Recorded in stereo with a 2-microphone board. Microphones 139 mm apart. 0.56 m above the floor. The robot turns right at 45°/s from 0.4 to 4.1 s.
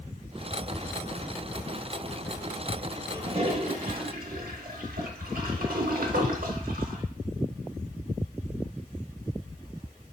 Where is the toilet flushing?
35° right (ahead or behind), 0.6 m; by 7.0 s 80° right, 0.6 m.